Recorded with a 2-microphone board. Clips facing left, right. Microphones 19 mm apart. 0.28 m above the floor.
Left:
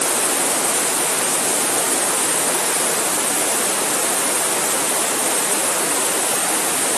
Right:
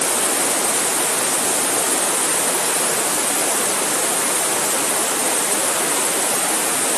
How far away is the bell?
I don't hear a bell.